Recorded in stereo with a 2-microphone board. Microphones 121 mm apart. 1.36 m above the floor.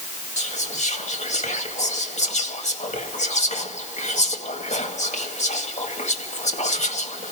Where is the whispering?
80° left, 1.9 m.